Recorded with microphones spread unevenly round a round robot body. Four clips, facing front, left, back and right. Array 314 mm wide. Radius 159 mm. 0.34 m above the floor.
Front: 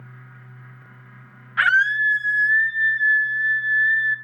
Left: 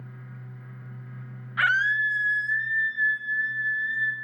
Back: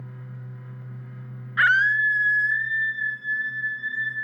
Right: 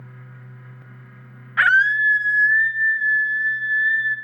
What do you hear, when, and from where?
1.6 s a scream: 80° right, 2.5 m; by 4.2 s 60° right, 3.5 m